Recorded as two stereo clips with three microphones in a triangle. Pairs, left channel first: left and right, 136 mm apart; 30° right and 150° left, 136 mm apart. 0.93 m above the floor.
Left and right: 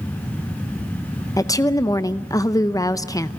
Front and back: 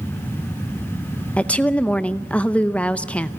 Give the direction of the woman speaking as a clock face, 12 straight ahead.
11 o'clock.